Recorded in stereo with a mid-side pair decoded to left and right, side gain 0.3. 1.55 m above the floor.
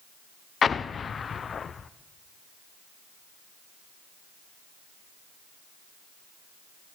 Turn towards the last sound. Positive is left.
turn(degrees=65)